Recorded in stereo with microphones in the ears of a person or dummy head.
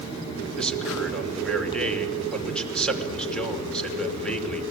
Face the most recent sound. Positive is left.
turn(degrees=0)  # may be behind; listen again after turning